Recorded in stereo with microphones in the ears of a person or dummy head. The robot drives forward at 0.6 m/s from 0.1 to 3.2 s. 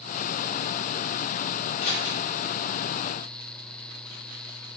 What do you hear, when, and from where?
1.8 s scissors: 45° left (ahead or behind), 2 m